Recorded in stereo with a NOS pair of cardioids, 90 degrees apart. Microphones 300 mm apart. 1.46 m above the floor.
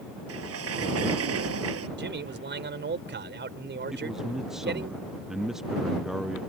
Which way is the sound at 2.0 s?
35° right.